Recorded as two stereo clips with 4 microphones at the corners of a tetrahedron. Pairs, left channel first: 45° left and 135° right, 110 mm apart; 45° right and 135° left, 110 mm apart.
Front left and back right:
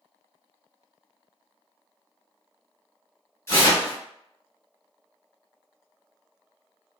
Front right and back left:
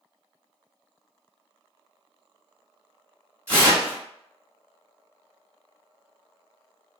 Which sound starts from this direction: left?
Tearing paper, at 3.5 s.